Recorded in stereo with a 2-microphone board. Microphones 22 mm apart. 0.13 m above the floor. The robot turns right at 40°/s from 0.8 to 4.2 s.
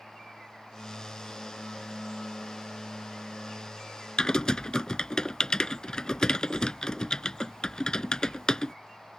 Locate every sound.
4.2 s typing on a keyboard: 35° left (ahead or behind)